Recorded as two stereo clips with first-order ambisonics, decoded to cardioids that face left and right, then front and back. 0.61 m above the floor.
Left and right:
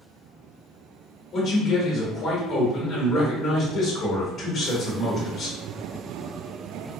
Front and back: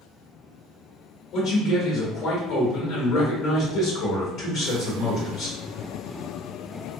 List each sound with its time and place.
1.3 s a man speaking: 25° left, 1.3 m